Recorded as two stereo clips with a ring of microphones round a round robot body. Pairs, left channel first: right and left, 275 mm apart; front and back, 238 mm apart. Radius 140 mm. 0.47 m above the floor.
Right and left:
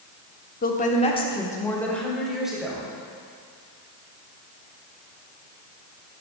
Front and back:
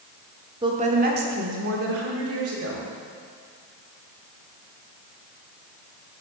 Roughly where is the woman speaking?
Behind right.